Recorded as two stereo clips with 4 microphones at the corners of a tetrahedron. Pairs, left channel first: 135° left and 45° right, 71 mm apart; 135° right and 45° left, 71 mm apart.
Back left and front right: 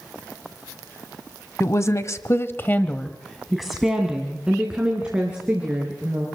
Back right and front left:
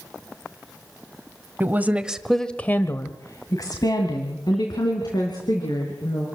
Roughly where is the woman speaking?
Left.